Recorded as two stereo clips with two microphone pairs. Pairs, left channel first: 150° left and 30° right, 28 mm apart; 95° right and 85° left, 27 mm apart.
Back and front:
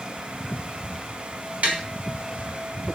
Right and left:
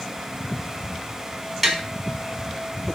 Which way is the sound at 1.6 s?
5° right.